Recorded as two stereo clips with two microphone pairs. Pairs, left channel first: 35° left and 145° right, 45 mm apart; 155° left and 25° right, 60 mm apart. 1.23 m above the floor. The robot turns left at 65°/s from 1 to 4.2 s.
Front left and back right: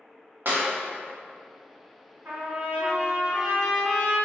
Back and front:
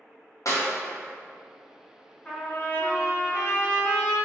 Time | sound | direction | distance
0.5 | a clap | 175° left | 0.8 m
2.2 | a trumpet | 145° right | 1.3 m